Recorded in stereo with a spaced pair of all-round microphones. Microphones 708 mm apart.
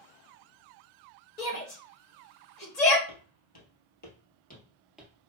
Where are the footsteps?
40° left (ahead or behind), 1.9 m; by 5.3 s 10° right (ahead or behind), 1.5 m.